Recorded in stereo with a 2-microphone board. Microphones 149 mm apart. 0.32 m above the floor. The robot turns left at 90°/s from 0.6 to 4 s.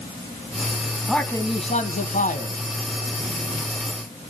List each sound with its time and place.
1.1 s a man speaking: straight behind, 2.0 m; by 2.6 s 45° left, 2.0 m